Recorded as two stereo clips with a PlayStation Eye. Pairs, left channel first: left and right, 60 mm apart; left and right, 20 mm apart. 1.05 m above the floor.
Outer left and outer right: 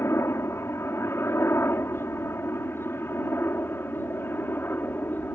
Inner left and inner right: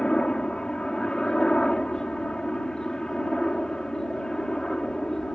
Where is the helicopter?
50° left (ahead or behind); by 5.4 s 35° left (ahead or behind).